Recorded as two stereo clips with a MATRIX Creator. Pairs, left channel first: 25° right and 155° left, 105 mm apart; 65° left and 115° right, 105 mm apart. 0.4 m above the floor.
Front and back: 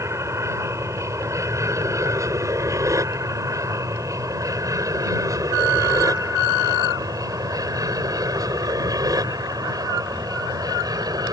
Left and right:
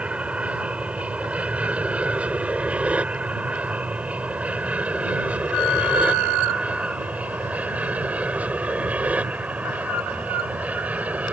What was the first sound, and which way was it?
An aircraft, straight behind.